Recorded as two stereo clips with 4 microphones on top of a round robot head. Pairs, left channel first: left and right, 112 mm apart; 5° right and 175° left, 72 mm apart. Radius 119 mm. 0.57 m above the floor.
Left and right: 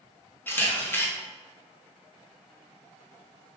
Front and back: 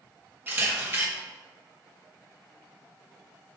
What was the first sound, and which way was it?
A camera shutter, 145° left.